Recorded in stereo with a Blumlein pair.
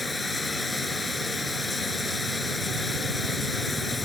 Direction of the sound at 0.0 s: 5° left.